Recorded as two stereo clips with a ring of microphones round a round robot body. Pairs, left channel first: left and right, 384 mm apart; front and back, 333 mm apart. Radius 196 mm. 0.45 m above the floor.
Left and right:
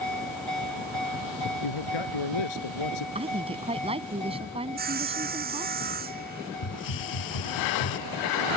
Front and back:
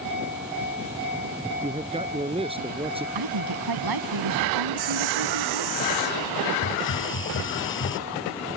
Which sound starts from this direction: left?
A man speaking, at 1.6 s.